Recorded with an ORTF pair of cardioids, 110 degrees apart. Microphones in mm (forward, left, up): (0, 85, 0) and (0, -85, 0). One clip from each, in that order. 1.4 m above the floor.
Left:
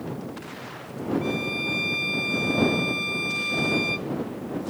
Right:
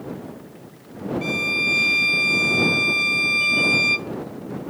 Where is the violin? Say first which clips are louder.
Right 11 dB; 50° right.